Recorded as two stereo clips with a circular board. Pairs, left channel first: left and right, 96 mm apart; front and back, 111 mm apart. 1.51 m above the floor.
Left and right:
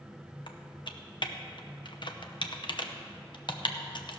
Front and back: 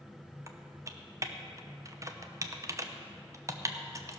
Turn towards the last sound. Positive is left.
turn(degrees=120)